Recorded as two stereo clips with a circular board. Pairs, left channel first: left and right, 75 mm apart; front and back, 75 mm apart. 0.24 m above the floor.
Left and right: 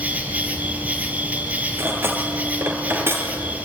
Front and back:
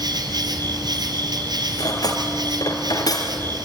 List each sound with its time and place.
0.0 s an insect: 160° right, 3 m
1.8 s cutlery clinking: 30° right, 3.5 m